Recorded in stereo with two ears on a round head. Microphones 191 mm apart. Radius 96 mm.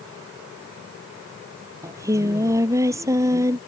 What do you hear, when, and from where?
1.8 s singing: 15° right (ahead or behind)